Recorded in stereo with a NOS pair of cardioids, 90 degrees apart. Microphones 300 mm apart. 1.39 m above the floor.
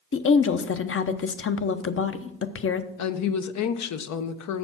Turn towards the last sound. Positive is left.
turn(degrees=60)